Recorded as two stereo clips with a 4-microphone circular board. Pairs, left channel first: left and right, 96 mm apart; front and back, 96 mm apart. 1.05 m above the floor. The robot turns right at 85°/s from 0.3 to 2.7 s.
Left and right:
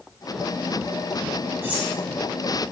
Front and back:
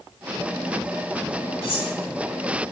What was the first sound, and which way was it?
Cutlery clinking, 25° right.